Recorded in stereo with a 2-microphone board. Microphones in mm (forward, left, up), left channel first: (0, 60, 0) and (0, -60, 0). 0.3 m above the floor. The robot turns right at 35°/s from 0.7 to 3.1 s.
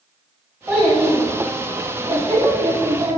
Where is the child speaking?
160° right, 1.6 m; by 3.2 s 80° right, 1.6 m.